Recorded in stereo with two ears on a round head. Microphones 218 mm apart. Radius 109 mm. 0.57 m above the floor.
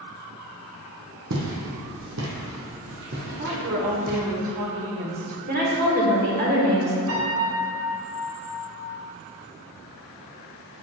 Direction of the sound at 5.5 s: 40° right (ahead or behind).